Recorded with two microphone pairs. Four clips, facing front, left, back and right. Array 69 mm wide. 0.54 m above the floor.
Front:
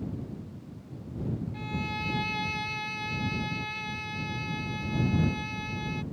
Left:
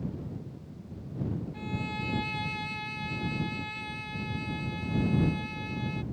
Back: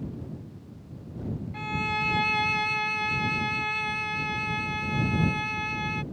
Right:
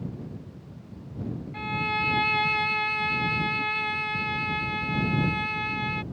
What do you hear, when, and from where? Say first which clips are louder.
1.5 s a violin: right 7 dB, back 5 dB; 120° right